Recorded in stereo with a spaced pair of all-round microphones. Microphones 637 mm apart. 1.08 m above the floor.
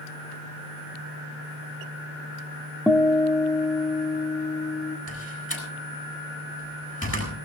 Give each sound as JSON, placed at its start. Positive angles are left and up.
{"t": 2.9, "sound": "a guitar", "side_deg": 5, "distance_m": 0.8}
{"t": 5.1, "sound": "a door slam", "side_deg": 20, "distance_m": 7.0}